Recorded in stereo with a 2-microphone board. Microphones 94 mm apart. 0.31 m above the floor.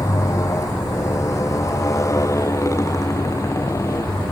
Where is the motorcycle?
35° left (ahead or behind); by 4.3 s 30° left (ahead or behind).